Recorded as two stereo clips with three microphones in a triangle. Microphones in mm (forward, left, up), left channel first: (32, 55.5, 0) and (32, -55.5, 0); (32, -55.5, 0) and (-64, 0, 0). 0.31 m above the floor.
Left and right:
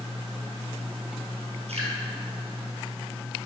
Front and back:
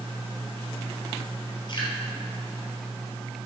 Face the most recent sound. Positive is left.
turn(degrees=-75)